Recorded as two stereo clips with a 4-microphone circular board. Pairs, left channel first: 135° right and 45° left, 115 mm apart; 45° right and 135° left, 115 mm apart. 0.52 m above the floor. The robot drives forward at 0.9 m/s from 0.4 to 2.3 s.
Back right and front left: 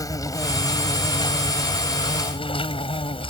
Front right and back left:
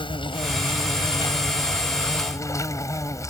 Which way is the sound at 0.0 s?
80° right.